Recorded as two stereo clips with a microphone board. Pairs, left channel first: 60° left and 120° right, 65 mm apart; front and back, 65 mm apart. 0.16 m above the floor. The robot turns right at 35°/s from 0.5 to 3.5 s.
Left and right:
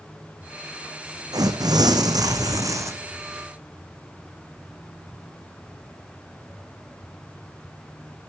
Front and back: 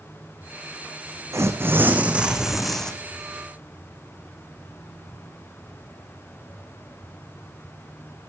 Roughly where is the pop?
I don't hear a pop.